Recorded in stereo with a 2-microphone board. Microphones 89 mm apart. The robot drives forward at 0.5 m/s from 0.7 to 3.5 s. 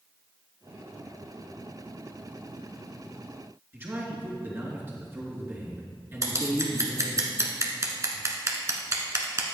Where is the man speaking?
25° right (ahead or behind), 3 m.